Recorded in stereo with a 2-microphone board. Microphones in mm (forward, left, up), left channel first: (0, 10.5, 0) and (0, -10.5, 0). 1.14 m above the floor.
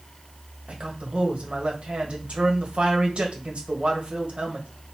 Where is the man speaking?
60° right (ahead or behind), 1.3 m.